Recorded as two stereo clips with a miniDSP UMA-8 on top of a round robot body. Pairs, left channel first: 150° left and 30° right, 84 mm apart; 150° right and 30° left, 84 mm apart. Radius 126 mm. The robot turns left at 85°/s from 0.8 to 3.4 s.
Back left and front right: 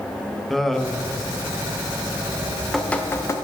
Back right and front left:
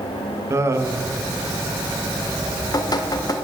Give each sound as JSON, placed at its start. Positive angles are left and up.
{"t": 0.5, "sound": "laughter", "azimuth_deg": 65, "distance_m": 1.4}
{"t": 2.3, "sound": "dripping", "azimuth_deg": -80, "distance_m": 1.1}